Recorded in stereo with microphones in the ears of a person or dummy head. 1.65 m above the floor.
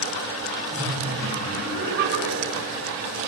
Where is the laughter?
55° right (ahead or behind), 8.5 m; by 2.8 s 60° right (ahead or behind), 9.5 m.